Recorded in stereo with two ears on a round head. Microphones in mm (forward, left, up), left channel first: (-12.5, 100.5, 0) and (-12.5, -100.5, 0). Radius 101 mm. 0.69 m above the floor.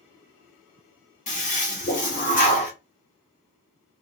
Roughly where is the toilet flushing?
Left.